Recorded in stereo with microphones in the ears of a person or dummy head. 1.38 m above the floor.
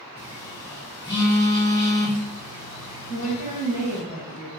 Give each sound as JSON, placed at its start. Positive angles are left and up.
{"t": 0.2, "sound": "a phone buzzing", "side_deg": 15, "distance_m": 0.6}
{"t": 3.1, "sound": "a woman speaking", "side_deg": 40, "distance_m": 1.1}